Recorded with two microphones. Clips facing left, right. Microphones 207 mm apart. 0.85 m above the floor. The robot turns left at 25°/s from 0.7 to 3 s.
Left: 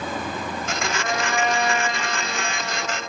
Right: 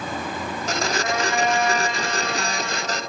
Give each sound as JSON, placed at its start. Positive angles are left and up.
{"t": 1.0, "sound": "a trumpet", "azimuth_deg": -20, "distance_m": 2.0}